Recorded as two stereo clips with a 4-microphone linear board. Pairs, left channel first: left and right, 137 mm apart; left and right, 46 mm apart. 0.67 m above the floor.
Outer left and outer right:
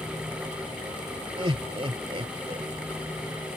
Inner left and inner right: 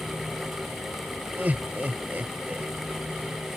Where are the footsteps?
I don't hear footsteps.